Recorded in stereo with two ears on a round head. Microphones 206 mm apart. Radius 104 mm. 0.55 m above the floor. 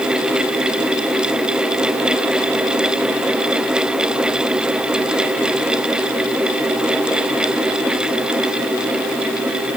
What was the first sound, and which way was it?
Only background noise.